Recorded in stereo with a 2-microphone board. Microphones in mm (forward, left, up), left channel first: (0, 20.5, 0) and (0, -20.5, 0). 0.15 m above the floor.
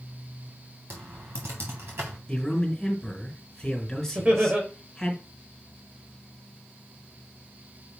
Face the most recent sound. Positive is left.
turn(degrees=-40)  # may be behind; listen again after turning